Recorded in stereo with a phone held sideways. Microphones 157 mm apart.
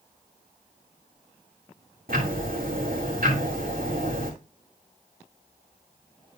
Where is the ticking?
65° right (ahead or behind), 2.5 m.